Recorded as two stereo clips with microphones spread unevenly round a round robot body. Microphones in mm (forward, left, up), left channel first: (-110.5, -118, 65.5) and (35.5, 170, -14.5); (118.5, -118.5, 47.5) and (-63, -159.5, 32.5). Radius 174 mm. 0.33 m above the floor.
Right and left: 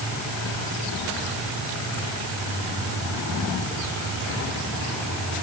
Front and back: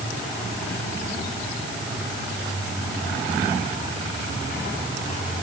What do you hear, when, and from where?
Only background noise.